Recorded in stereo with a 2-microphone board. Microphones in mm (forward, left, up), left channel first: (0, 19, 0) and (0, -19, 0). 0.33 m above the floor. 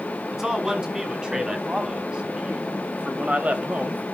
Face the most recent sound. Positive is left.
turn(degrees=-45)  # may be behind; listen again after turning